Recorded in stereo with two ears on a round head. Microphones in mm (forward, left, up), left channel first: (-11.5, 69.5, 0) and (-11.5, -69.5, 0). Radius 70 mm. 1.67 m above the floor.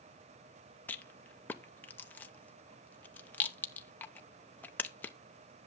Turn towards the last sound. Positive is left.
turn(degrees=10)  # may be behind; listen again after turning